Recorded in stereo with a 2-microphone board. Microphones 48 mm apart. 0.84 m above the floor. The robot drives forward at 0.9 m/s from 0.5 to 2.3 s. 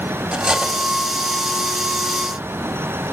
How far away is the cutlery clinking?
About 1.2 m.